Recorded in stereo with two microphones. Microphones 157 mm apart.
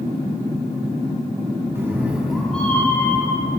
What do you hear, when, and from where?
1.8 s a cat meowing: 15° right (ahead or behind), 1.2 m; by 3.6 s 30° left (ahead or behind), 1.3 m